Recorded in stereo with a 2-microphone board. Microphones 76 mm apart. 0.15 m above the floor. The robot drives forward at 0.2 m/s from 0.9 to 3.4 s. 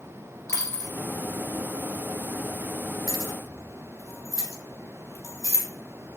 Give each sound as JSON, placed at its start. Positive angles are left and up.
{"t": 0.5, "sound": "a dropped coin", "side_deg": 40, "distance_m": 1.2}
{"t": 3.1, "sound": "keys jangling", "side_deg": 50, "distance_m": 1.7}